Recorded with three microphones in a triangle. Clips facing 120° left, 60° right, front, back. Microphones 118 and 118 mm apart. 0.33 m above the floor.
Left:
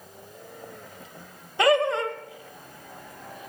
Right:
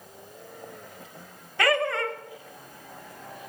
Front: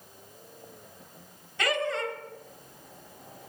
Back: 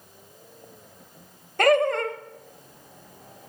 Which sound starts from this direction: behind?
Laughter, at 1.6 s.